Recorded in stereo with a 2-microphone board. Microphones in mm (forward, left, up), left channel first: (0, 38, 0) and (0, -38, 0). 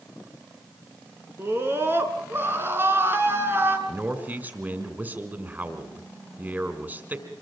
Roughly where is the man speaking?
Right.